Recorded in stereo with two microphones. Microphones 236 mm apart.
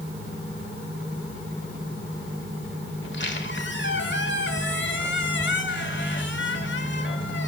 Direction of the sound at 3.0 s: 50° left (ahead or behind).